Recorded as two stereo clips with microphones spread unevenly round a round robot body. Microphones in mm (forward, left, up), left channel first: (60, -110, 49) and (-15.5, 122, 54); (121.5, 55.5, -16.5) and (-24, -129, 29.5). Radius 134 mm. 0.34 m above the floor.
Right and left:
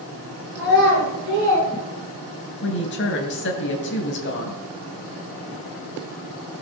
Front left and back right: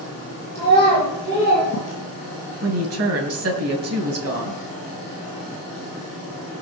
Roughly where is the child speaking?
Behind left.